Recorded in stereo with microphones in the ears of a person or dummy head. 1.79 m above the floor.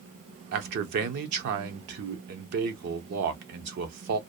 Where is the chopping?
No chopping in this recording.